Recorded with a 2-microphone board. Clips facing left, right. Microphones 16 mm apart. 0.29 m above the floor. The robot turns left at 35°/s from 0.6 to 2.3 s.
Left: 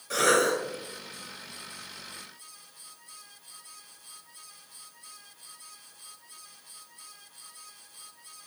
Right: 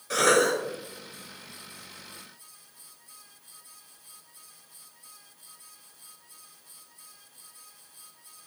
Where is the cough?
15° right (ahead or behind), 0.9 m.